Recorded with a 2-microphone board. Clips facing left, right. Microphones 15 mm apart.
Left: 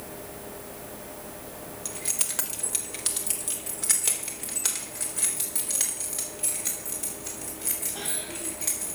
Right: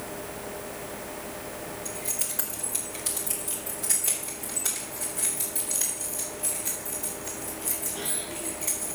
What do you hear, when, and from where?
1.9 s keys jangling: 55° left (ahead or behind), 1.7 m; by 8.9 s 65° left (ahead or behind), 7 m